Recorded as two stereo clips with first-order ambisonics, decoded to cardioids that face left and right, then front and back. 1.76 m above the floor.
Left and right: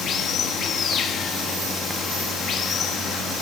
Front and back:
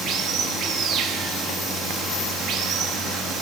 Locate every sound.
0.0 s running water: 140° left, 1.8 m